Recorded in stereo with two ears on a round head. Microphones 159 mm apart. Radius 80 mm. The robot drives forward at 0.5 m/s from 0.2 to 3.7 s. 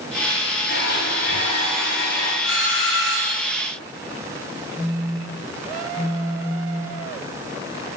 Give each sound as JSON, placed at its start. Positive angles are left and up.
{"t": 0.7, "sound": "a blender", "side_deg": 65, "distance_m": 2.0}
{"t": 2.4, "sound": "a doorbell", "side_deg": 80, "distance_m": 4.0}
{"t": 4.8, "sound": "a phone buzzing", "side_deg": 45, "distance_m": 2.5}